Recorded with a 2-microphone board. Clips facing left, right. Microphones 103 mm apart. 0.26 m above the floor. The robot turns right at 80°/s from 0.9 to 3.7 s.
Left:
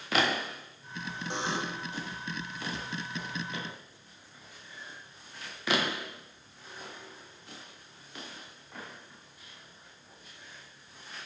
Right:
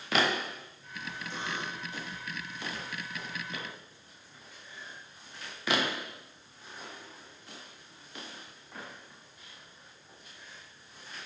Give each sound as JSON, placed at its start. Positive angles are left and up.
{"t": 1.3, "sound": "a buzzer", "azimuth_deg": 70, "distance_m": 9.5}